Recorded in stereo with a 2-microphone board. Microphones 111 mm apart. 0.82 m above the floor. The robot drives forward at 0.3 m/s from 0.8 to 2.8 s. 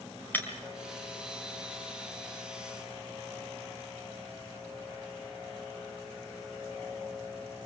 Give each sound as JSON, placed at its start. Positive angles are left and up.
{"t": 0.3, "sound": "breaking glass", "side_deg": 15, "distance_m": 4.0}